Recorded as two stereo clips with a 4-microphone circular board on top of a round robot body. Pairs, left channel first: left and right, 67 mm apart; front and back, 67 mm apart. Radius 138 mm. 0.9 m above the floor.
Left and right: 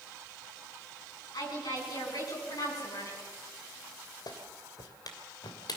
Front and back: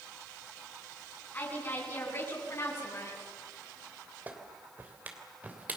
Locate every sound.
1.3 s a woman speaking: 65° left, 10 m; by 3.2 s 50° left, 9 m
4.3 s a clap: 115° left, 3 m